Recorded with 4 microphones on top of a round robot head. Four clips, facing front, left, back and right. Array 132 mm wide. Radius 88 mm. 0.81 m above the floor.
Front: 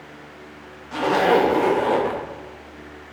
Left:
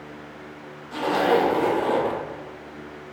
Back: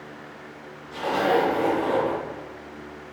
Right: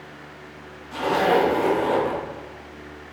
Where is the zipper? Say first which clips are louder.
Right 1 dB, front 4 dB; 10° left, 1.0 m.